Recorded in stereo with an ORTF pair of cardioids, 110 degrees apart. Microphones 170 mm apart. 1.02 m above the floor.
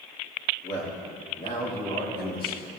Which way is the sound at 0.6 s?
45° left.